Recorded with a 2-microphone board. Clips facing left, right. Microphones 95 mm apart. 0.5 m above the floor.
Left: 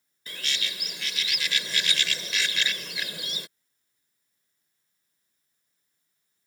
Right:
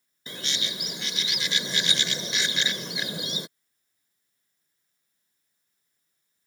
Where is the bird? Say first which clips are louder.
Right 1 dB; 20° right (ahead or behind).